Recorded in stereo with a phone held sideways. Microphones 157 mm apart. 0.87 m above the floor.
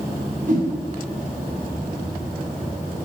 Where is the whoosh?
50° right (ahead or behind), 7 m.